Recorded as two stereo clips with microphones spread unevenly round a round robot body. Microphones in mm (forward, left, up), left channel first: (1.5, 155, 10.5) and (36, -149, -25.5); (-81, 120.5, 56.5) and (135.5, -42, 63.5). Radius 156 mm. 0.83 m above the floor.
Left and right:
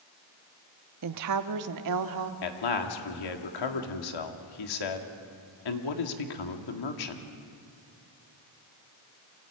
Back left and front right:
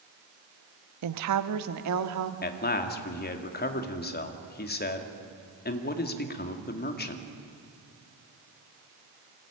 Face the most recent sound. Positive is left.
turn(degrees=90)